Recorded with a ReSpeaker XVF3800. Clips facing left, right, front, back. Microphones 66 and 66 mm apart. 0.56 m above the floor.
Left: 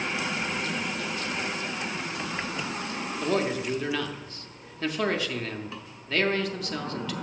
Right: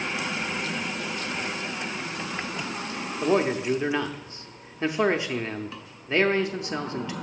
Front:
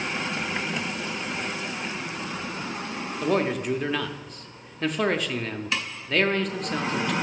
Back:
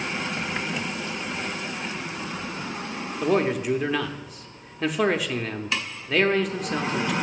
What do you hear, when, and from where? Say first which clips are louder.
3.2 s a man speaking: right 4 dB, back 2 dB; 95° right, 0.6 m